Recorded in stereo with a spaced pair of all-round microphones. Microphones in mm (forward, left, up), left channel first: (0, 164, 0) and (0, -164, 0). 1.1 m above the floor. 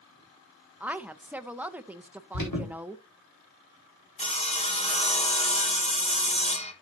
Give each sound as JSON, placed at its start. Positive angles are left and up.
{"t": 0.8, "sound": "a woman speaking", "side_deg": -5, "distance_m": 0.6}
{"t": 2.3, "sound": "an alarm", "side_deg": 80, "distance_m": 4.5}
{"t": 4.2, "sound": "sawing", "side_deg": 20, "distance_m": 1.2}